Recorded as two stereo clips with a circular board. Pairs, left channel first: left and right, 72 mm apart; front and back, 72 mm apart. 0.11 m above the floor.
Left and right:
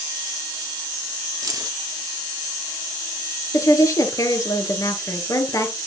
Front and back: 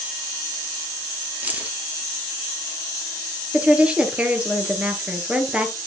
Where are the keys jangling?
115° right, 1.7 m.